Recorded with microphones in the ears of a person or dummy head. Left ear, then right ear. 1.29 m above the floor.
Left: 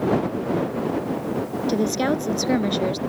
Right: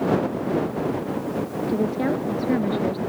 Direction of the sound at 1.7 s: 85° left.